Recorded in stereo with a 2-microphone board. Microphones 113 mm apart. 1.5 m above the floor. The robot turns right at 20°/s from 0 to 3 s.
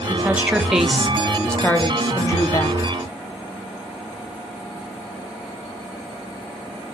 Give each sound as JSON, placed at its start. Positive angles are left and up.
{"t": 0.1, "sound": "a woman speaking", "azimuth_deg": -20, "distance_m": 0.5}